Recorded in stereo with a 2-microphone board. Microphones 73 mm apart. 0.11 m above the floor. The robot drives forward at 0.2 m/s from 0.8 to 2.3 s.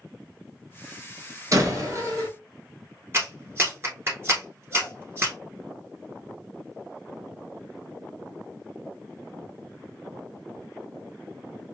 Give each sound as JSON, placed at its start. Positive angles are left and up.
{"t": 1.5, "sound": "a door slam", "side_deg": -45, "distance_m": 1.2}
{"t": 3.1, "sound": "a clap", "side_deg": -35, "distance_m": 1.3}